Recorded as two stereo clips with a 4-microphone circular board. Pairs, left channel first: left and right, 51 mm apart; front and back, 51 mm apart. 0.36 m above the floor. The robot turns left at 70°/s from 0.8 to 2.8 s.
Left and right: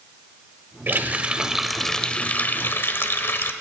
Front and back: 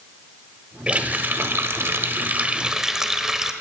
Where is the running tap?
120° right, 0.7 m; by 3.5 s 105° left, 0.7 m.